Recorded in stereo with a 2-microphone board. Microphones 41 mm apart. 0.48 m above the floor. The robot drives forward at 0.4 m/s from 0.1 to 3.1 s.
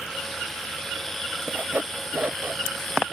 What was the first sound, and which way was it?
Sawing, 50° right (ahead or behind).